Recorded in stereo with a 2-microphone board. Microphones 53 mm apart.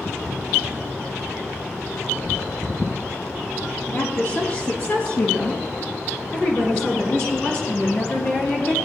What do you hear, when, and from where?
3.9 s a woman speaking: 50° left (ahead or behind), 4 m; by 8.7 s 30° left (ahead or behind), 1.6 m